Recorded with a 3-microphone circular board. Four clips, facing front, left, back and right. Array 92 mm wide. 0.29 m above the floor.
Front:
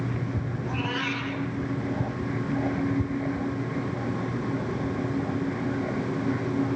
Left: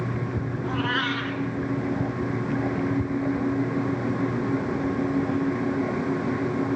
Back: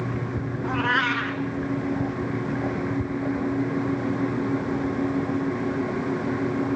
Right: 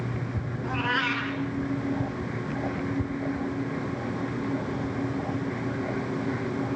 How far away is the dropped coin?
I don't hear a dropped coin.